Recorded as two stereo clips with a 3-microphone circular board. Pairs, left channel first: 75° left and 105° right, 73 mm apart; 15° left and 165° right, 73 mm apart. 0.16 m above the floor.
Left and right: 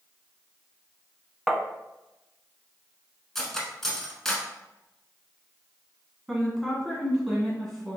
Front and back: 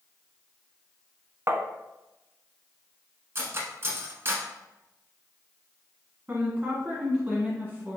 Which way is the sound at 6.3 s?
165° left.